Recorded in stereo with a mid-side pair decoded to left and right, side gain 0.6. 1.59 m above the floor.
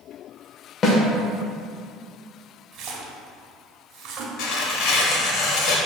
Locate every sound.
0.8 s a snare drum: 35° left, 1.1 m
2.7 s a splash: 60° right, 0.9 m
4.4 s tearing paper: 65° left, 1.1 m